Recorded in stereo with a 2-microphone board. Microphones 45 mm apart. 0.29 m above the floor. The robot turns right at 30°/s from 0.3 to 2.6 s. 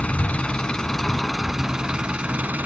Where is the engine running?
150° left, 0.9 m; by 2.6 s 140° right, 0.9 m.